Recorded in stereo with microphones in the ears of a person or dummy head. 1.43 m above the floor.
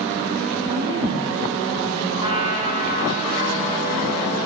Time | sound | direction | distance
0.7 | a woman speaking | 30° right (ahead or behind) | 2.5 m
2.2 | a trumpet | 35° right (ahead or behind) | 2 m